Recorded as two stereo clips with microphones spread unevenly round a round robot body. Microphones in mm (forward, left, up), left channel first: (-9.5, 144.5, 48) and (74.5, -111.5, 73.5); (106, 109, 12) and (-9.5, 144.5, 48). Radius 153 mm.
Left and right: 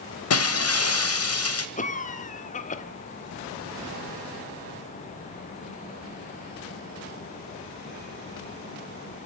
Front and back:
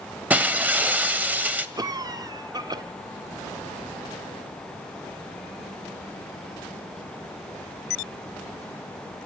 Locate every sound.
0.3 s breaking glass: 80° left, 1.6 m
1.8 s a cough: 100° left, 1.5 m